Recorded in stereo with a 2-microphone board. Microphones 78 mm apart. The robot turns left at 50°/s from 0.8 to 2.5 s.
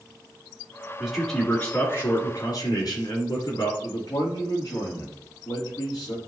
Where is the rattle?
No rattle in this recording.